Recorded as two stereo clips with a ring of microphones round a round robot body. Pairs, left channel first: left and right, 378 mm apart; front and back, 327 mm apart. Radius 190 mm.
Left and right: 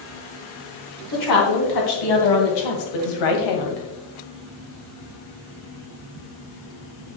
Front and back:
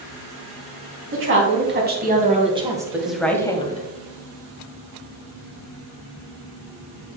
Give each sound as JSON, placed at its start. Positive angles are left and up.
{"t": 1.1, "sound": "a woman speaking", "azimuth_deg": 130, "distance_m": 3.0}